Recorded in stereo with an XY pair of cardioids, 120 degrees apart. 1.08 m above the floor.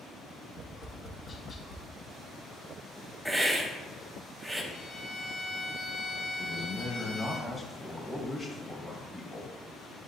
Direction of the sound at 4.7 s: 60° left.